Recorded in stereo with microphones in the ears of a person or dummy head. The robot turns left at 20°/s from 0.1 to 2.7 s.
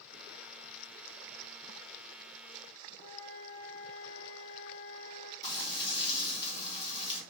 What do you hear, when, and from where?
3.0 s a flute: 40° left (ahead or behind), 1.3 m
5.4 s frying: 30° left (ahead or behind), 1.5 m